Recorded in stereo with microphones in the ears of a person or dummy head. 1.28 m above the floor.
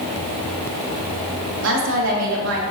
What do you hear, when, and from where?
1.6 s a woman speaking: 65° right (ahead or behind), 1.9 m